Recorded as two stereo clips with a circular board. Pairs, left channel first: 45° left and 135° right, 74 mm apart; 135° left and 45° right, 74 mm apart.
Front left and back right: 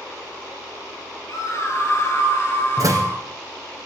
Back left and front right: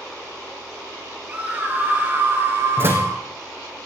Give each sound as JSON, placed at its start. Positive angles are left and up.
{"t": 1.3, "sound": "a scream", "azimuth_deg": 20, "distance_m": 3.5}
{"t": 2.8, "sound": "a door slam", "azimuth_deg": -100, "distance_m": 4.0}